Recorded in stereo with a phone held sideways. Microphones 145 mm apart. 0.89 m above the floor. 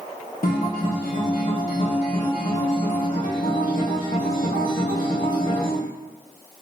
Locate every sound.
0.4 s a guitar: 75° left (ahead or behind), 0.5 m